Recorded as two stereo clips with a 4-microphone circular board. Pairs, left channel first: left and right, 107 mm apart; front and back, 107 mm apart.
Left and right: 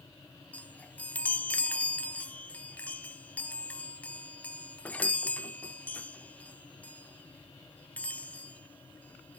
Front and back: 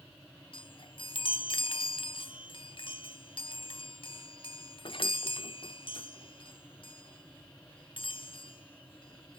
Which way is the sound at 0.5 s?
15° left.